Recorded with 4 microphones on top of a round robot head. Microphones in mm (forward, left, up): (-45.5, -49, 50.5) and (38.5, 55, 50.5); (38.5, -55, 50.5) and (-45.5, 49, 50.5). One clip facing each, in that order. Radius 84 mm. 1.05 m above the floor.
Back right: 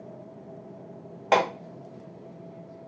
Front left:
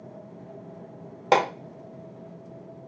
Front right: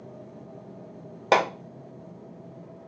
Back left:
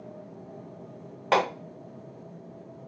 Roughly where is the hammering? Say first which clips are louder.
Front left 1 dB, front right 2 dB; ahead.